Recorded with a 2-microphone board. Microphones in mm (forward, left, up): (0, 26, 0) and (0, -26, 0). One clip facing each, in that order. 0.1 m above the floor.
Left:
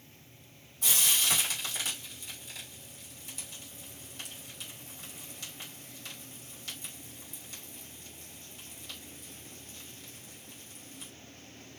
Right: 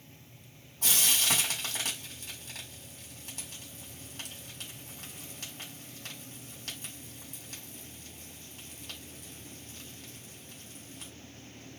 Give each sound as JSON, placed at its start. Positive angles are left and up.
{"t": 0.8, "sound": "frying", "side_deg": -50, "distance_m": 3.5}